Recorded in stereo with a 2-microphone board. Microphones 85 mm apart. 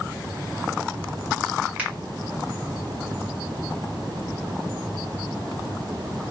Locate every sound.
1.8 s a finger snap: 15° right (ahead or behind), 1.8 m